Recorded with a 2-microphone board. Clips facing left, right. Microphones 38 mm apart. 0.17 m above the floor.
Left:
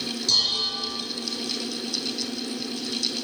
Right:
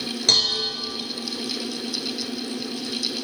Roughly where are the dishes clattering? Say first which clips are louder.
Right 3 dB; right.